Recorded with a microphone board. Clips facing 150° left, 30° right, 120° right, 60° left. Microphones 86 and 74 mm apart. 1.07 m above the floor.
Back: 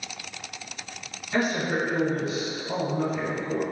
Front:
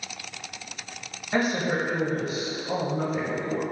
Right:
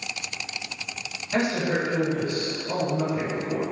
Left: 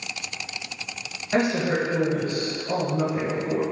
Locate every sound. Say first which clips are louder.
1.3 s a woman speaking: front 1 dB, left 2 dB; 15° left, 1.5 m